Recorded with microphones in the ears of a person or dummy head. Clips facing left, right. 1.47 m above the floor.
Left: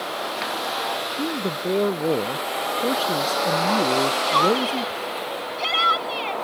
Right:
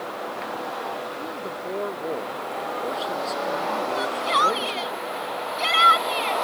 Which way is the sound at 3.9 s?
20° right (ahead or behind).